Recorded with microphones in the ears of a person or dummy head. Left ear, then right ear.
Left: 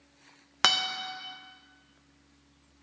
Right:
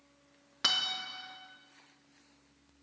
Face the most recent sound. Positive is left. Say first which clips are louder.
# left 5 dB
turn(degrees=40)  # may be behind; listen again after turning